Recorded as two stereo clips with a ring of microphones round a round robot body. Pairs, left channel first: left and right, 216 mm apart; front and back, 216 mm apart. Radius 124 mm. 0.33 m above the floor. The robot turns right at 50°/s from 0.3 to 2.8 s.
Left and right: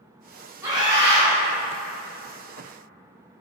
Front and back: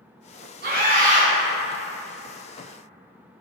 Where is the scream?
165° right, 1.3 m; by 1.3 s 130° right, 1.3 m.